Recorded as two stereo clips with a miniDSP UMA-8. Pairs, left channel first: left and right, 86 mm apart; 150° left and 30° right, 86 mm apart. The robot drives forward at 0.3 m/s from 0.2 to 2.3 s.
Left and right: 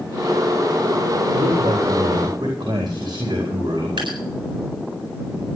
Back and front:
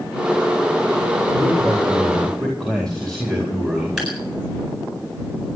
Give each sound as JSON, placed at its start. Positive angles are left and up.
{"t": 1.3, "sound": "a man speaking", "azimuth_deg": -125, "distance_m": 4.0}
{"t": 4.0, "sound": "dripping", "azimuth_deg": -115, "distance_m": 8.5}